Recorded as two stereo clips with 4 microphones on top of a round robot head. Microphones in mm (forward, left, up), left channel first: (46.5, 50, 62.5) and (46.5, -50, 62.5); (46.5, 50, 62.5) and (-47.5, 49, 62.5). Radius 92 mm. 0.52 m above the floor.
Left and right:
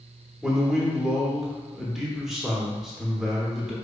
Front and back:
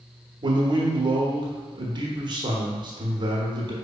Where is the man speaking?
175° right, 1.0 m.